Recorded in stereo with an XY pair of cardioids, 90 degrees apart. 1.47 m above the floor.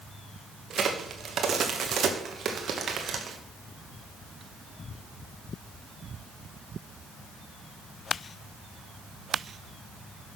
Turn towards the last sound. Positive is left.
turn(degrees=-60)